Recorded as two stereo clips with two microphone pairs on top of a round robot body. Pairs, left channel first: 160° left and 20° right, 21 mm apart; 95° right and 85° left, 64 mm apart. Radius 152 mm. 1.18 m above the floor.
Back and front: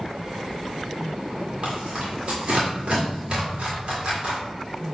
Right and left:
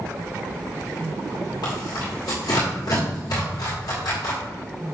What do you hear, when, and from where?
1.6 s tearing paper: 70° right, 1.7 m